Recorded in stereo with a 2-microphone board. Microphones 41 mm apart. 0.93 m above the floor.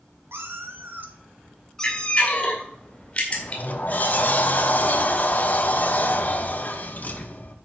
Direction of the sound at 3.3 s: 45° left (ahead or behind).